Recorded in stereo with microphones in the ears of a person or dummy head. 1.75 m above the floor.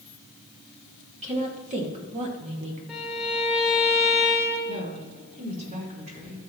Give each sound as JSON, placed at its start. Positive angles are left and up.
{"t": 1.2, "sound": "a woman speaking", "side_deg": -40, "distance_m": 2.0}
{"t": 2.9, "sound": "a violin", "side_deg": 0, "distance_m": 1.6}
{"t": 4.7, "sound": "a woman speaking", "side_deg": -45, "distance_m": 4.5}